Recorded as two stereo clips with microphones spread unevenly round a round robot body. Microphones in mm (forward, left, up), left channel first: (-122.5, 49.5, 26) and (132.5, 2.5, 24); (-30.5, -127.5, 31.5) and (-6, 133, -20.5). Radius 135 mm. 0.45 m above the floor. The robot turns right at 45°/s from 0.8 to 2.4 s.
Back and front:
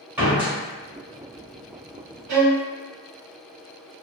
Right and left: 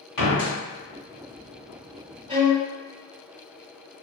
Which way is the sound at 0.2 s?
95° right.